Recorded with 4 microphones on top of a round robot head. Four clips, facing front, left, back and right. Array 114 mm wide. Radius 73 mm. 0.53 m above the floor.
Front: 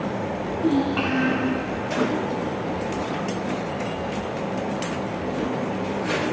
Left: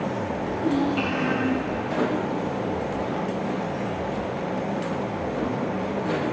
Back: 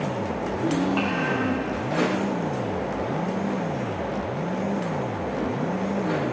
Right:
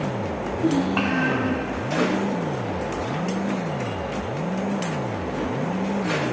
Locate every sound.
0.6 s a child speaking: 90° right, 1.8 m